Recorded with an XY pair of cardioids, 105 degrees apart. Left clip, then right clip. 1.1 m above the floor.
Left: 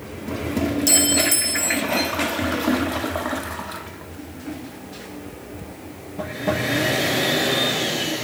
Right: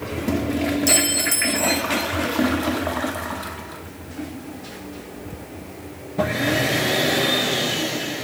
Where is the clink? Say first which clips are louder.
Left 2 dB; 15° left, 0.6 m.